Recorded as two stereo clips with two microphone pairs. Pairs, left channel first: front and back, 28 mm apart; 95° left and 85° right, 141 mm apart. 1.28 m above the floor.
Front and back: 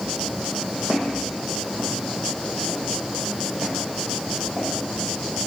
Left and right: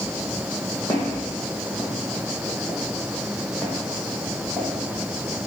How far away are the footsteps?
About 3.5 m.